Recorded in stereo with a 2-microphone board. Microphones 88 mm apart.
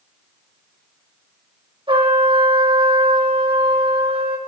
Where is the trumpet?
80° right, 3.5 m.